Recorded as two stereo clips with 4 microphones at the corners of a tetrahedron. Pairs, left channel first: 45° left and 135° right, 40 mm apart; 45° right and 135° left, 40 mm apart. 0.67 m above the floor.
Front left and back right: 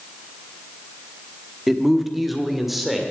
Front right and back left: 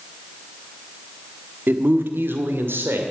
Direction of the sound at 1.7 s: 140° left.